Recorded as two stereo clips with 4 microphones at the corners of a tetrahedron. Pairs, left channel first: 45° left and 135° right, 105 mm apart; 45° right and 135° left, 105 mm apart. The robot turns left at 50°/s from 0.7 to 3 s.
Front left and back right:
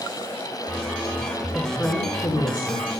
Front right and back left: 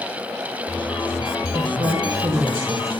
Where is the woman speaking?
120° left, 1.6 m; by 2.9 s 55° left, 1.6 m.